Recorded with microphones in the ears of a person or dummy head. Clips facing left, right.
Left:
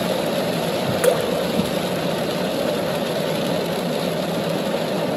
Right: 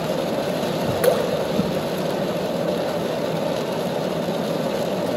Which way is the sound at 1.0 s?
Centre (ahead or behind).